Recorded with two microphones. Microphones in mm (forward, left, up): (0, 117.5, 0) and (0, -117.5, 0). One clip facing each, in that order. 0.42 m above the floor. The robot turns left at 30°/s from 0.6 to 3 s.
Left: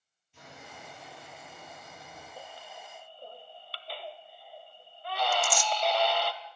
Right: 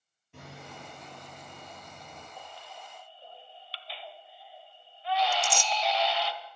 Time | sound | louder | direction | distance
0.3 | hammering | right 4 dB | 110° right | 9.5 m
2.4 | a baby crying | left 1 dB | 40° left (ahead or behind) | 1.4 m
5.3 | tearing paper | left 1 dB | 25° right (ahead or behind) | 0.6 m